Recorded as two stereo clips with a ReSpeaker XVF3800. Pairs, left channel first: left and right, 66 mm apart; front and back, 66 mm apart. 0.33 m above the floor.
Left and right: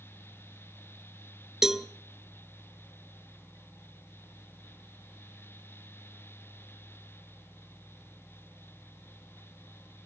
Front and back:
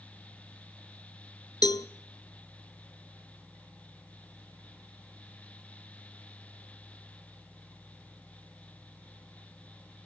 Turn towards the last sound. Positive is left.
turn(degrees=-5)